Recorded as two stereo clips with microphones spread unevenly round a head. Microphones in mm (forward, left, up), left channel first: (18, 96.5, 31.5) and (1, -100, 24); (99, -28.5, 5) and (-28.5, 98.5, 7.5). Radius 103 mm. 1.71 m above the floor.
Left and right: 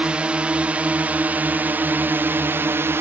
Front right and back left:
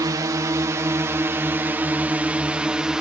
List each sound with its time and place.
0.0 s a drone: 170° right; by 3.0 s 145° right